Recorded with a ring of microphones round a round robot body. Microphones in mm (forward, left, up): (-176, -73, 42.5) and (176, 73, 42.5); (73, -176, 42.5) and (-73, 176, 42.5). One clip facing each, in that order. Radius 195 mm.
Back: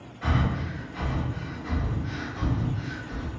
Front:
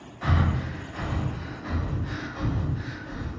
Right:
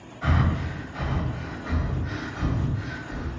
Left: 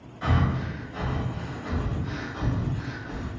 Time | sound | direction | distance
0.2 | breathing | 75° left | 1.6 m